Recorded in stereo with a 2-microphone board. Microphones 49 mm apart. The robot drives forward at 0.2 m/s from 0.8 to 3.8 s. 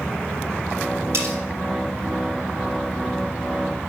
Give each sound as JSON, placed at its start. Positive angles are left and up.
{"t": 1.1, "sound": "cutlery clinking", "side_deg": -70, "distance_m": 4.0}